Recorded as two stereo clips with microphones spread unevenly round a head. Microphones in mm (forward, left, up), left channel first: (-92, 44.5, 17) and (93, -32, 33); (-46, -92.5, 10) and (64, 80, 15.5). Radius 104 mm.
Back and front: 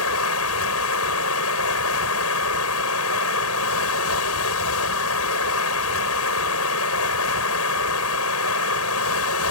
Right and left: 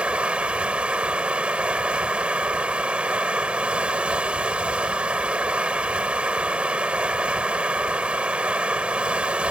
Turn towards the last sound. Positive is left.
turn(degrees=140)